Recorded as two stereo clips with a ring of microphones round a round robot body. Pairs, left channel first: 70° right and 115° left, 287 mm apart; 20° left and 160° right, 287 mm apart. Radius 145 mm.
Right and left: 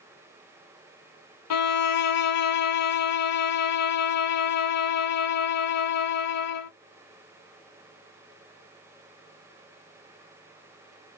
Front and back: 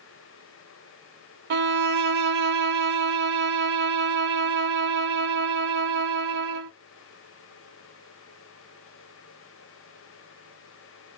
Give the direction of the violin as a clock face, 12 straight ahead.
3 o'clock.